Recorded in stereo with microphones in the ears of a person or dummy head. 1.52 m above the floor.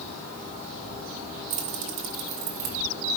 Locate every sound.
1.5 s keys jangling: 50° right (ahead or behind), 0.8 m